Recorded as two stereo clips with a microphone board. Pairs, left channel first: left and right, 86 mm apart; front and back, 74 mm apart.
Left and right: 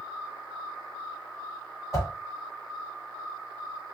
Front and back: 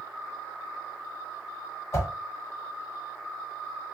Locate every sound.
1.9 s a whoosh: 40° left, 1.3 m